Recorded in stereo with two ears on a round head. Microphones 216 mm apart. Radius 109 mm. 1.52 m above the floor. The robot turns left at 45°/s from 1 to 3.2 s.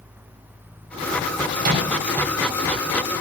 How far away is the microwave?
About 6 m.